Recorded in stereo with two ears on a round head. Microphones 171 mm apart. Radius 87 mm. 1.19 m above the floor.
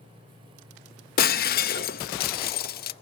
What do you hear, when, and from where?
1.2 s breaking glass: 50° left (ahead or behind), 0.6 m